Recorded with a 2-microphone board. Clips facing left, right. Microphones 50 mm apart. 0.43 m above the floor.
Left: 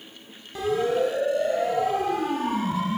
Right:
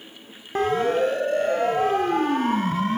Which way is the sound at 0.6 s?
45° right (ahead or behind).